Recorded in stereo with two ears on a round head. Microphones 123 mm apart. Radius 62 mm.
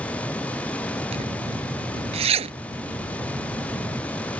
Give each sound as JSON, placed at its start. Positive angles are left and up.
{"t": 1.1, "sound": "a zipper", "side_deg": -45}